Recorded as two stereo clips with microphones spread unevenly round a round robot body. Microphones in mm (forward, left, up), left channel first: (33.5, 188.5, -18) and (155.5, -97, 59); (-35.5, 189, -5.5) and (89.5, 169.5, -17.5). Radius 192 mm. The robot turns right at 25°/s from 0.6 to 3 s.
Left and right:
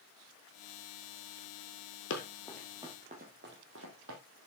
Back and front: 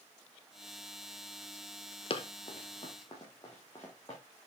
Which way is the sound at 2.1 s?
175° left.